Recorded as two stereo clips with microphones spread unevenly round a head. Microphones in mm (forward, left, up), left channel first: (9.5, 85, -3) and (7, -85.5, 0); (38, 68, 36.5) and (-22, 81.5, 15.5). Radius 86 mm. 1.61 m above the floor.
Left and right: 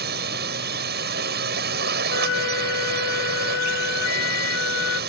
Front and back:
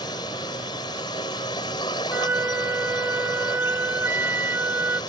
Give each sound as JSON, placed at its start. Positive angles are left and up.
{"t": 0.0, "sound": "a drone", "azimuth_deg": -60}
{"t": 2.1, "sound": "a flute", "azimuth_deg": 110}